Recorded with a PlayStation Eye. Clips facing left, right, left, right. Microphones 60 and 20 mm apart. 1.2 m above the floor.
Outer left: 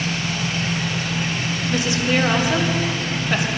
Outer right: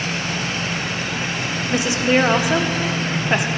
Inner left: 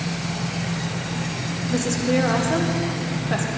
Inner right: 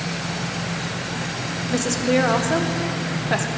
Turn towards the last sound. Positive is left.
turn(degrees=-20)  # may be behind; listen again after turning